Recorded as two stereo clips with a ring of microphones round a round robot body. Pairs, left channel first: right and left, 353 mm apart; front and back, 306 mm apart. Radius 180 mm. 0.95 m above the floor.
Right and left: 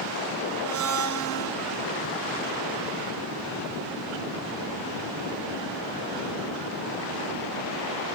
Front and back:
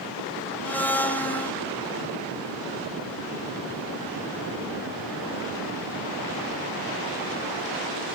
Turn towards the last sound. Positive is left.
turn(degrees=85)